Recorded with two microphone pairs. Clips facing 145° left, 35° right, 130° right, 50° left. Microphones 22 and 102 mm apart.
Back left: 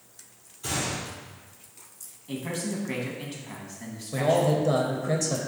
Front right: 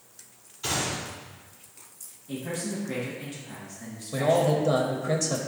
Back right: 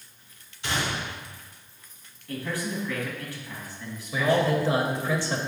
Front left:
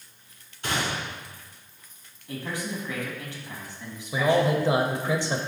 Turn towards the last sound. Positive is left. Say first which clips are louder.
# even, front left 1 dB
turn(degrees=30)